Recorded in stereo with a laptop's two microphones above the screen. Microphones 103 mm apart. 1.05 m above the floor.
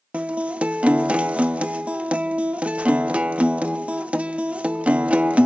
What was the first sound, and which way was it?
A guitar, 15° right (ahead or behind).